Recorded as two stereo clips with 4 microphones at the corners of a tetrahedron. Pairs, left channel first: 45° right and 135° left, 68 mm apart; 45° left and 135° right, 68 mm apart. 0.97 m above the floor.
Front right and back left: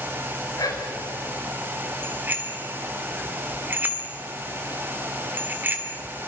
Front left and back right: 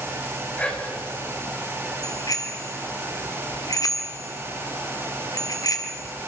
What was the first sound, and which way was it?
Whispering, 25° right.